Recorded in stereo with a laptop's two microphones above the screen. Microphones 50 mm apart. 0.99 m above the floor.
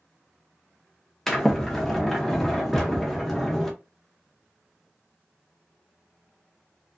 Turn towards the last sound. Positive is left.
turn(degrees=5)  # may be behind; listen again after turning